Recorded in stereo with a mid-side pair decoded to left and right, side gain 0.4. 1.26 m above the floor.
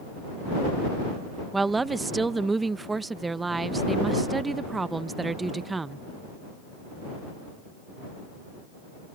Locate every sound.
1.5 s a woman speaking: 25° right